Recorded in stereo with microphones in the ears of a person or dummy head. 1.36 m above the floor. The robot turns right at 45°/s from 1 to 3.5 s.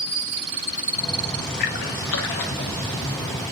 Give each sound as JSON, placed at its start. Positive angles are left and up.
{"t": 1.6, "sound": "a splash", "side_deg": 40, "distance_m": 0.9}